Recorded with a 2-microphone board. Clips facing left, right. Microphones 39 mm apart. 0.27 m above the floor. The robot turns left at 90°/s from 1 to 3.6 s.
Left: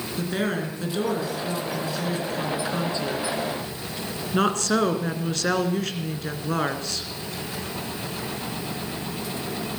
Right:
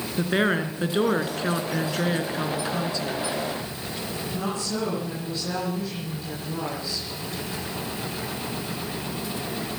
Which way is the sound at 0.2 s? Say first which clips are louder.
Right 4 dB; 35° right.